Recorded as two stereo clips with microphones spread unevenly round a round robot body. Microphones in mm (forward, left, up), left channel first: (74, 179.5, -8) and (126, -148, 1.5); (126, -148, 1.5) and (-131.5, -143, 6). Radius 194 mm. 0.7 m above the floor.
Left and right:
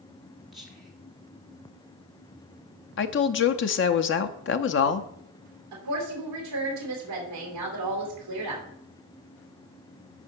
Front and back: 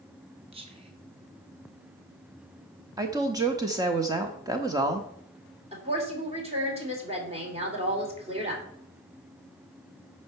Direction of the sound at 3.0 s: 110° left.